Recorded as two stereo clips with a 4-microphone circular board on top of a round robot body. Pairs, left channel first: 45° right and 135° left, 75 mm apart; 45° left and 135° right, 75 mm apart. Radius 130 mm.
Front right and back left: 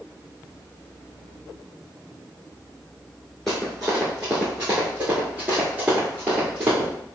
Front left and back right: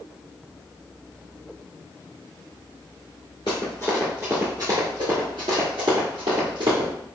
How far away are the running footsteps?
About 1.2 m.